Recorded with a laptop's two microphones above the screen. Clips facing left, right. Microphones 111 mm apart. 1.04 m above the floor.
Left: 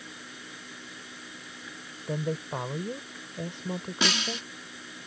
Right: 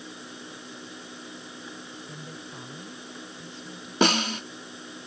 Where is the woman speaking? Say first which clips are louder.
Left 10 dB; 70° left (ahead or behind).